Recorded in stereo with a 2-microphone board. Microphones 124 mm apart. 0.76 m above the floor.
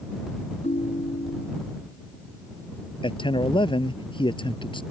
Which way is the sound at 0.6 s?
75° left (ahead or behind).